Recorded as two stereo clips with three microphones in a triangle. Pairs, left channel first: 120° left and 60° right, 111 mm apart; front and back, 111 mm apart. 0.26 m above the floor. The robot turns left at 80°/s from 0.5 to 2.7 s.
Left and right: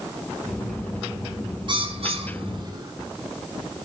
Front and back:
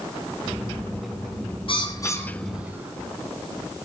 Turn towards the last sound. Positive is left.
turn(degrees=-105)